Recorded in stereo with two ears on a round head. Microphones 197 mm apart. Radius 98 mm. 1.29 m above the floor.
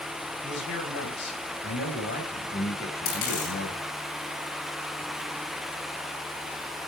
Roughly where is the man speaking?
Left.